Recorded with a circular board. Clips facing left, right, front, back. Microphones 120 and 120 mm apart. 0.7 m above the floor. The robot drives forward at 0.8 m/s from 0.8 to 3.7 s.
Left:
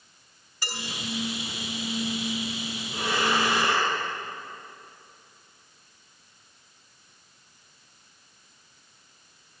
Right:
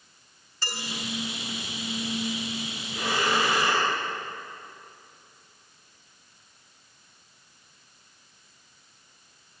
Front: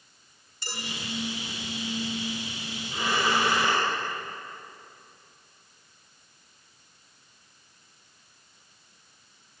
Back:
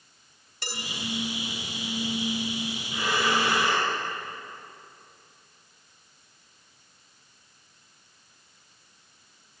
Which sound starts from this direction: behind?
Dishes clattering, at 0.6 s.